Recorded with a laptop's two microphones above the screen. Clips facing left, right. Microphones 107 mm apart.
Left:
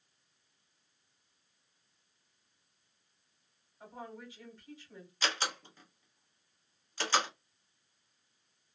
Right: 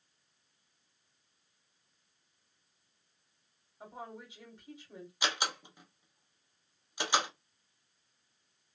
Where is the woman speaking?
20° right (ahead or behind), 2 m.